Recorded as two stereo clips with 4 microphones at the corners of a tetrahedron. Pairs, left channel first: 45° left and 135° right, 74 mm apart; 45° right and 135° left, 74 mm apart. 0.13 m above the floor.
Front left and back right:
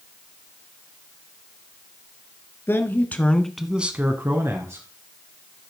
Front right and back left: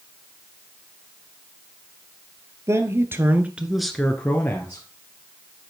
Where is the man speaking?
95° left, 1.8 m; by 4.9 s 100° right, 2.0 m.